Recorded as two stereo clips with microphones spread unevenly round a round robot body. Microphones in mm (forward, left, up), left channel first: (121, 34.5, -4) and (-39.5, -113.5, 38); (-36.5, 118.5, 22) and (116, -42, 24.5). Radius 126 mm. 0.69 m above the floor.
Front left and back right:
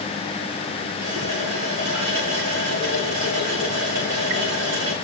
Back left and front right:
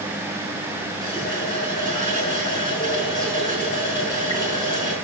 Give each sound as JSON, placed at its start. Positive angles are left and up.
{"t": 1.0, "sound": "a running tap", "azimuth_deg": -150, "distance_m": 7.0}